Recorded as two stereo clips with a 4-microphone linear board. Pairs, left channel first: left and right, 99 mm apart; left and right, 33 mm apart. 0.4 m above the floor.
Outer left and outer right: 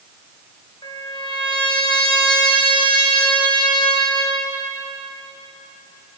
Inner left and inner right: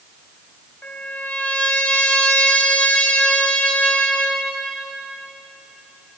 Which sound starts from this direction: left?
A trumpet, at 0.8 s.